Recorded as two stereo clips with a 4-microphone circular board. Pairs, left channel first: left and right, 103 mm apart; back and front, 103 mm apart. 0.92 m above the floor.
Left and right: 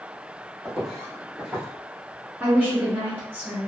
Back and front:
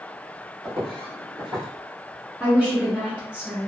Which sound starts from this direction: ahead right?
A woman speaking, at 2.4 s.